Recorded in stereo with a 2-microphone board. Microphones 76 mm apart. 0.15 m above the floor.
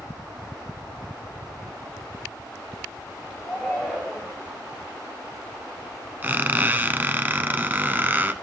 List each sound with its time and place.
3.4 s a shout: 10° right (ahead or behind), 3.5 m; by 4.4 s centre (ahead or behind), 4.5 m
6.2 s a squeak: 25° right (ahead or behind), 0.7 m